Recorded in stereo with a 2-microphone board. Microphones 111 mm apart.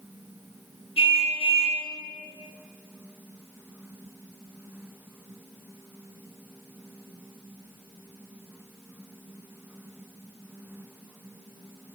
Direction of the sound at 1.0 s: 65° left (ahead or behind).